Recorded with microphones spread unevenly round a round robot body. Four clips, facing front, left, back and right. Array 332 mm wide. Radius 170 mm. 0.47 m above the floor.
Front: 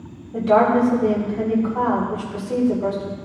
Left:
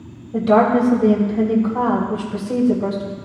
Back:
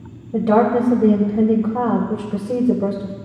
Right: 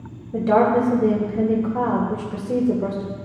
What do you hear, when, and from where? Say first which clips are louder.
0.3 s a woman speaking: left 2 dB, even; 175° right, 1.8 m